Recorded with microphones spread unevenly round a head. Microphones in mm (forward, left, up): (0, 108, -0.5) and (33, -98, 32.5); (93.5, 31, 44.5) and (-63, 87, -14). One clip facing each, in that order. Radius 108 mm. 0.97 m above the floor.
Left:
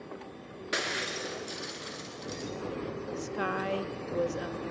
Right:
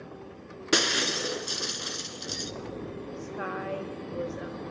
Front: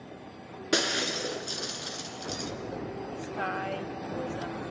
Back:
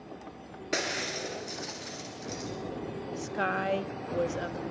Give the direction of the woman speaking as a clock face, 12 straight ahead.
8 o'clock.